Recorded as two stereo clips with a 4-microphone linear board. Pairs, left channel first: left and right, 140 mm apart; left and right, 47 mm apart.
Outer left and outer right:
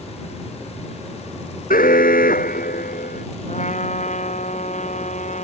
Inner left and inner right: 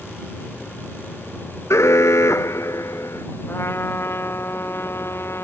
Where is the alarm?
80° left.